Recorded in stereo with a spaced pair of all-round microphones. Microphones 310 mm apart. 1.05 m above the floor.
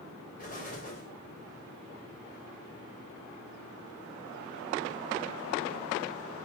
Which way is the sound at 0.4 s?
30° left (ahead or behind).